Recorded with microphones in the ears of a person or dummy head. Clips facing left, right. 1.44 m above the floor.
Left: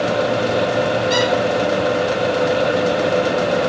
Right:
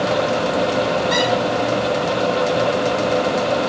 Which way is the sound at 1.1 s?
45° left (ahead or behind).